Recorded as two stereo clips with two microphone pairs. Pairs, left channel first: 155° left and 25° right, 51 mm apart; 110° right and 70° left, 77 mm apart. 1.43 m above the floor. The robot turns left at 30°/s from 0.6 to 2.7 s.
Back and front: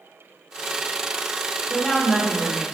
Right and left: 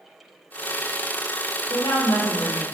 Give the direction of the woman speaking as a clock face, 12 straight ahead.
4 o'clock.